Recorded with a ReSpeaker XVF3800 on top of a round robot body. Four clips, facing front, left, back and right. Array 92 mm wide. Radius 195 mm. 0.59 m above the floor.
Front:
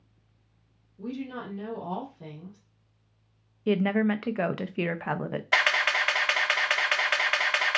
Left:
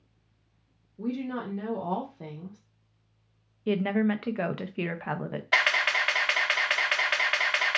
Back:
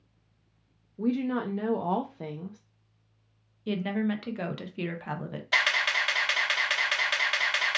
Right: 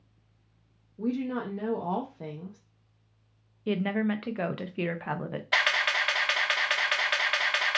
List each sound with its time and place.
1.0 s a woman speaking: 170° right, 0.7 m
3.7 s a woman speaking: 10° left, 0.6 m
5.5 s a camera shutter: 25° left, 1.3 m